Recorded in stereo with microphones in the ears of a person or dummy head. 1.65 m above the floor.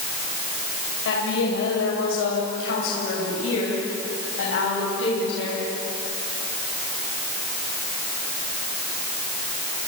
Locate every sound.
1.1 s a woman speaking: 85° left, 7 m; by 5.7 s 80° left, 9.5 m